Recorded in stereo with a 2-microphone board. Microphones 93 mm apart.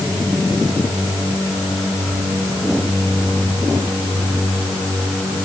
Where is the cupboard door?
No cupboard door in this recording.